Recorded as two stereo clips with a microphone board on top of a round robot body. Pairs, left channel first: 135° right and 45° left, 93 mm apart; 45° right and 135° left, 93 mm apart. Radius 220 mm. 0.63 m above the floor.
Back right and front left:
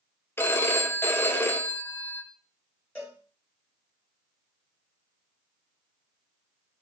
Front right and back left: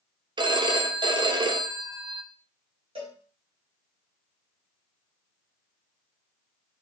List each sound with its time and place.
0.4 s a phone ringing: 160° left, 0.6 m
3.0 s a cowbell: 150° left, 1.1 m